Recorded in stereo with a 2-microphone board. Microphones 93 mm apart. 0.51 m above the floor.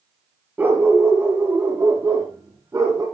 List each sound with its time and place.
0.6 s a dog barking: 20° right (ahead or behind), 3.5 m; by 3.0 s 35° right (ahead or behind), 7.5 m